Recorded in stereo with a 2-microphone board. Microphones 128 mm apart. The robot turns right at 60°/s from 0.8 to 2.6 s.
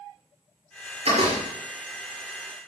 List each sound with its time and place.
1.1 s a door slam: 50° right (ahead or behind), 6.5 m; by 1.4 s 70° right (ahead or behind), 6.5 m